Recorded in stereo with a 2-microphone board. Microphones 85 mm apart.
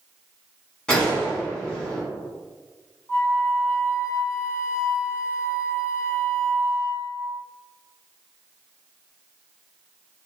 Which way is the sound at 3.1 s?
30° left (ahead or behind).